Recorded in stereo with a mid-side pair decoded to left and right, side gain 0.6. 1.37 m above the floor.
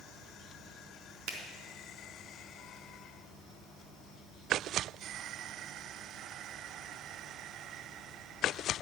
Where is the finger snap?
65° right, 3.5 m.